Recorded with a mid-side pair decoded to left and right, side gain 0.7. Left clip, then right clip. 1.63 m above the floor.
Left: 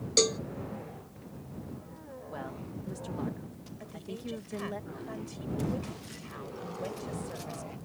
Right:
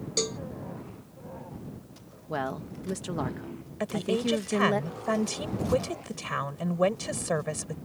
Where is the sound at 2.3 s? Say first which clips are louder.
Right 10 dB; 45° right.